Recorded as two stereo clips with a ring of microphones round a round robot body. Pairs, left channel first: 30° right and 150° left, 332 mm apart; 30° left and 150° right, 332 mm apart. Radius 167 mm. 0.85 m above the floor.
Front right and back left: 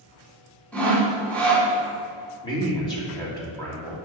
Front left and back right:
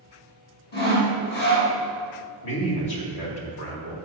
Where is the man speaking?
45° left, 2.5 m.